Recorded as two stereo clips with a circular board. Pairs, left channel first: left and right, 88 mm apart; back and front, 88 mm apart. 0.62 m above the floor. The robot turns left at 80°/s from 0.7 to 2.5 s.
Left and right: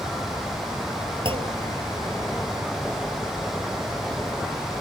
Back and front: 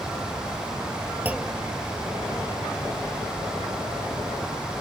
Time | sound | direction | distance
1.2 | a clunk | 70° right | ?